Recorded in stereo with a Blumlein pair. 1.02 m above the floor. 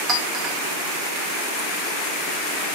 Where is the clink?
25° right, 2 m.